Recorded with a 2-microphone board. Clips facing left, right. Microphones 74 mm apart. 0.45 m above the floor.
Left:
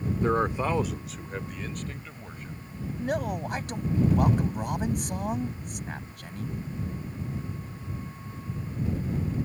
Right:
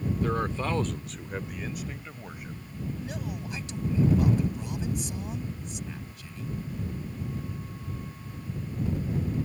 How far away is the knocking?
No knocking in this recording.